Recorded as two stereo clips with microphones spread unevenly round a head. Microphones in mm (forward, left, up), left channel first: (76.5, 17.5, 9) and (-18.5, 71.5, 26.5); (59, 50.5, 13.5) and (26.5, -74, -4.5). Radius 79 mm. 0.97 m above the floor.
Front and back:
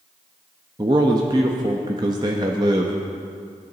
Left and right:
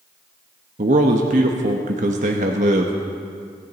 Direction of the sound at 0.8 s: 145° right.